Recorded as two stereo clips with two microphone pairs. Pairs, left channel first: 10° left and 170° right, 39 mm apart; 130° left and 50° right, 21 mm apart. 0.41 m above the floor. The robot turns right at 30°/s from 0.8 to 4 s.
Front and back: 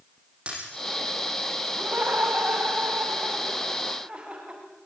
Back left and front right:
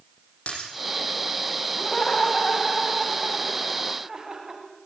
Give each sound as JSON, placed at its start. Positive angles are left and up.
{"t": 0.5, "sound": "breaking glass", "azimuth_deg": 125, "distance_m": 9.0}
{"t": 1.8, "sound": "laughter", "azimuth_deg": 180, "distance_m": 2.5}